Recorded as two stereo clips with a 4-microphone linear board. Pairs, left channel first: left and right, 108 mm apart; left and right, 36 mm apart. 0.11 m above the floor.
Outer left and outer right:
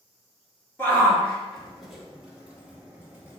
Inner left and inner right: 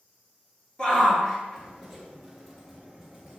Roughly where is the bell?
No bell in this recording.